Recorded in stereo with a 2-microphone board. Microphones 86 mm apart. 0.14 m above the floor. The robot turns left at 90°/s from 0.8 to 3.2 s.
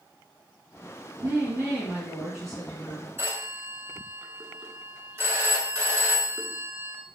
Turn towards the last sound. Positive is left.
turn(degrees=-30)  # may be behind; listen again after turning